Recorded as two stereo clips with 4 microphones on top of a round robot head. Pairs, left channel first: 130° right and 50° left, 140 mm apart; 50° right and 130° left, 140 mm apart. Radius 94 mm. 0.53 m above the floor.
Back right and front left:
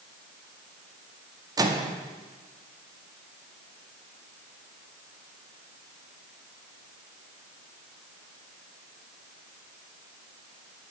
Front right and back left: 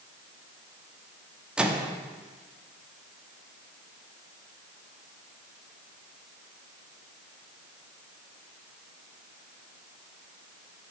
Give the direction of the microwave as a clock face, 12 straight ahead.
10 o'clock.